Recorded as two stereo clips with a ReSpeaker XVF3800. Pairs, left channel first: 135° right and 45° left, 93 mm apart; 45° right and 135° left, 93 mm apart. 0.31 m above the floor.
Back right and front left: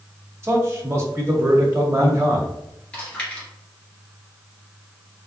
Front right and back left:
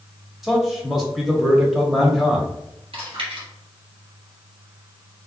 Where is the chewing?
145° left, 1.9 m.